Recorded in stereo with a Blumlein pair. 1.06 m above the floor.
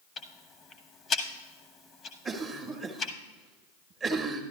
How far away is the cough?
About 1.2 m.